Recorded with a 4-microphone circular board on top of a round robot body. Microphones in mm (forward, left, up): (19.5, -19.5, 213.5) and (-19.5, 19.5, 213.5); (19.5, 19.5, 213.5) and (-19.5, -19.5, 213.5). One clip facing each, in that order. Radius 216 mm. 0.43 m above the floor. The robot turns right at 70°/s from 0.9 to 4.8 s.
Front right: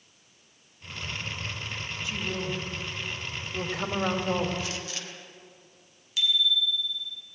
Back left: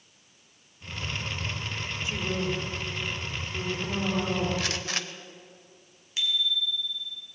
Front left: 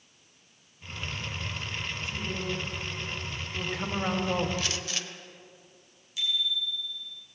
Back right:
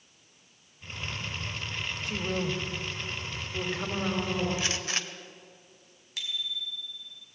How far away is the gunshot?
About 0.8 m.